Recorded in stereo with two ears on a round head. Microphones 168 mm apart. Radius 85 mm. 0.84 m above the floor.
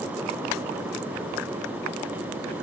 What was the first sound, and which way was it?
Only background noise.